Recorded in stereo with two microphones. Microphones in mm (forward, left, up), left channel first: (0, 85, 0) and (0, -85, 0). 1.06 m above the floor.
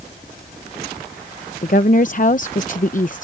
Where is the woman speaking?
50° left (ahead or behind).